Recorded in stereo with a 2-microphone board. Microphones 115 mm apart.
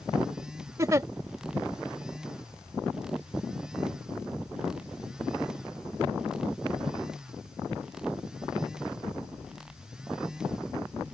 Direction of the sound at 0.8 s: 30° right (ahead or behind).